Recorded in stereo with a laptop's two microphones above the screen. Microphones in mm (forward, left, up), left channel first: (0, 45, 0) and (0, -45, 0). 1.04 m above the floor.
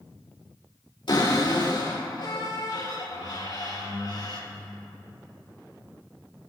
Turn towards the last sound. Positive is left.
turn(degrees=80)